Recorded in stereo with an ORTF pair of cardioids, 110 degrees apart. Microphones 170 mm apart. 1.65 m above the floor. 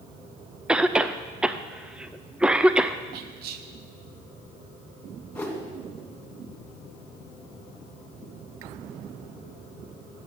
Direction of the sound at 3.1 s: 70° right.